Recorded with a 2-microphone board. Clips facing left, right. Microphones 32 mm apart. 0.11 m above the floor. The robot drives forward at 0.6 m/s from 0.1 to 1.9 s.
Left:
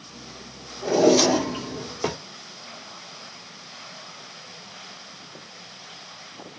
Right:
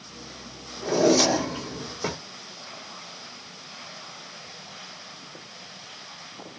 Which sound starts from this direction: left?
A drawer, at 0.8 s.